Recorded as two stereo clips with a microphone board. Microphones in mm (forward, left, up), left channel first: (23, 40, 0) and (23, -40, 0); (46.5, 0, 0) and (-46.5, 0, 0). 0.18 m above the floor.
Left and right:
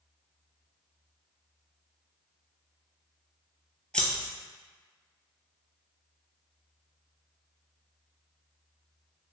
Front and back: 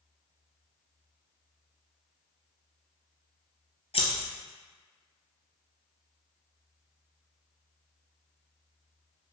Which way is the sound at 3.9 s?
10° left.